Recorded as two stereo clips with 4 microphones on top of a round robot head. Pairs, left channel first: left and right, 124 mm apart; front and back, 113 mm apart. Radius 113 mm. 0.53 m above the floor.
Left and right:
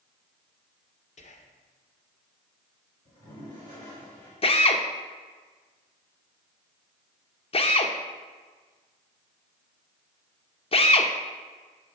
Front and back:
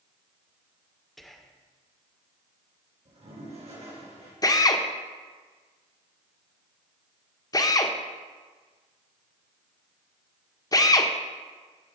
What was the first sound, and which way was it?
Whispering, 90° left.